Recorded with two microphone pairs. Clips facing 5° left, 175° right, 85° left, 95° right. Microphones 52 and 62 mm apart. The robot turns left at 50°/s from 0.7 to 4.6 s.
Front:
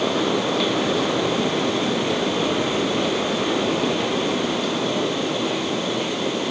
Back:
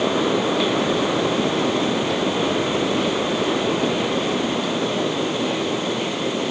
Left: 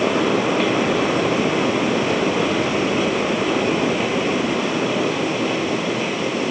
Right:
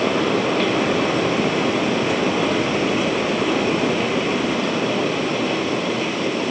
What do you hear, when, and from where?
Only background noise.